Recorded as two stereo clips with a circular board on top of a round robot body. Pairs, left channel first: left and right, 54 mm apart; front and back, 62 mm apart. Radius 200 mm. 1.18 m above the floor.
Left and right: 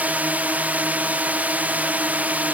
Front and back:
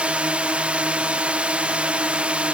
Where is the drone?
125° right.